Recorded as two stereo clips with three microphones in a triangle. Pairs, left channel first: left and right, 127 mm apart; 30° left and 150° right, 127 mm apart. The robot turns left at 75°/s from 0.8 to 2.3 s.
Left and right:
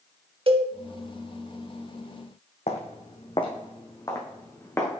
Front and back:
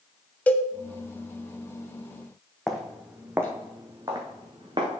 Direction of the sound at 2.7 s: 115° left.